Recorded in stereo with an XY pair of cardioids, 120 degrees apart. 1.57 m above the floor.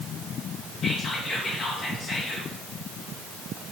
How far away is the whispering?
About 2.5 m.